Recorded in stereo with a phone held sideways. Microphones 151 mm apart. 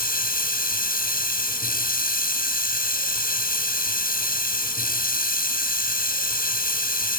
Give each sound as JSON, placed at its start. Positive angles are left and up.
{"t": 0.0, "sound": "running water", "side_deg": 70, "distance_m": 5.5}